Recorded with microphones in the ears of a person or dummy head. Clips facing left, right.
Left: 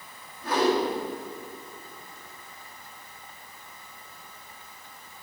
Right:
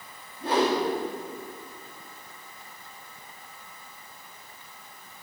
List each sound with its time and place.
0.4 s a whoosh: 20° right (ahead or behind), 2 m